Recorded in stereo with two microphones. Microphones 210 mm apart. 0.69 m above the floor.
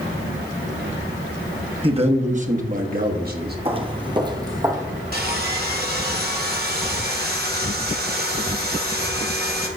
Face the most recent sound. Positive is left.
turn(degrees=-45)  # may be behind; listen again after turning